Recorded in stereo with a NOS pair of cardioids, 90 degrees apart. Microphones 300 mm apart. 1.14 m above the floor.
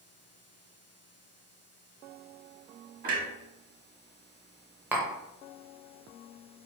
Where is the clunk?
30° right, 1.0 m.